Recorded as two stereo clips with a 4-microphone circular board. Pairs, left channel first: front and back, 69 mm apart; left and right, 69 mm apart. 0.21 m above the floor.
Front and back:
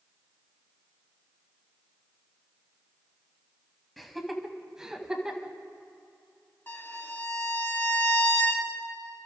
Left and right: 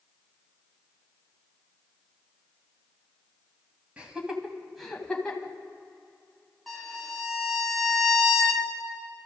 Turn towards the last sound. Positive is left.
turn(degrees=0)